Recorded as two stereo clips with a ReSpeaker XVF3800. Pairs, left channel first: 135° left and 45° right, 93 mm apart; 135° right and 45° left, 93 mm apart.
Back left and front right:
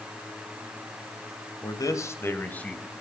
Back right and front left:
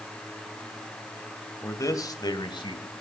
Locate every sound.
1.6 s a man speaking: 170° left, 2 m; by 2.9 s 145° right, 2.5 m